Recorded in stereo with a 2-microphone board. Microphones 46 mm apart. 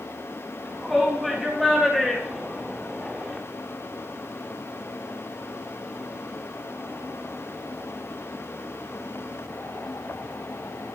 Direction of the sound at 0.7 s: 5° right (ahead or behind).